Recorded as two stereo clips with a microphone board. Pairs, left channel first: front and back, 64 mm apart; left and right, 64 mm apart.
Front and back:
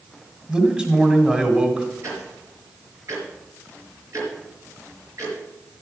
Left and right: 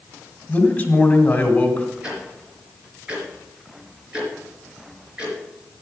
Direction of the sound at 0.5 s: 125° left.